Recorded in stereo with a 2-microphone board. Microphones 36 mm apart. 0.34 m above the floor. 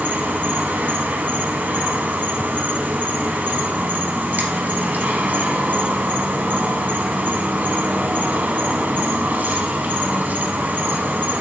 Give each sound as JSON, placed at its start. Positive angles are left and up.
{"t": 0.0, "sound": "an insect", "side_deg": -55, "distance_m": 0.8}